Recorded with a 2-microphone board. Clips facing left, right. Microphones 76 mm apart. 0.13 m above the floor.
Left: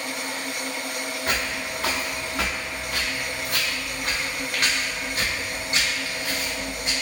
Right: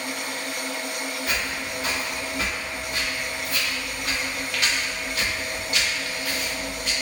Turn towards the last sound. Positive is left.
turn(degrees=20)  # may be behind; listen again after turning